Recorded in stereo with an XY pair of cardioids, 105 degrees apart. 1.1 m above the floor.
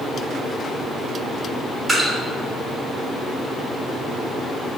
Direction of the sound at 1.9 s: 35° right.